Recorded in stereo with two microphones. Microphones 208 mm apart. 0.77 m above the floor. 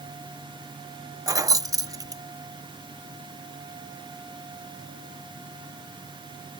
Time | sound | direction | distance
1.3 | keys jangling | 15° right (ahead or behind) | ?